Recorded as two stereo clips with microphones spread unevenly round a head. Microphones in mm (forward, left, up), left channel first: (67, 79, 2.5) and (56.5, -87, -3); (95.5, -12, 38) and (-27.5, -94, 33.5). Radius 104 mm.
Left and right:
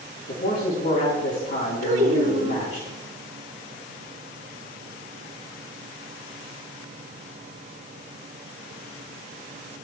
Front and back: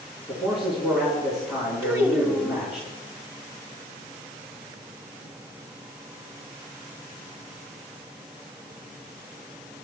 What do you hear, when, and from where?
0.3 s a man speaking: 125° left, 4 m
1.8 s a child speaking: 75° right, 2.5 m